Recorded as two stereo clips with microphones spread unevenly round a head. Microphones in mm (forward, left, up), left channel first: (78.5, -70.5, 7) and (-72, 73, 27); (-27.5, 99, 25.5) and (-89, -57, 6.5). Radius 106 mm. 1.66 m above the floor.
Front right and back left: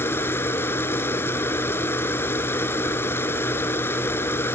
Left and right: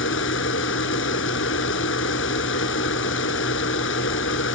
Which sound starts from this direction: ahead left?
A machine running, at 0.0 s.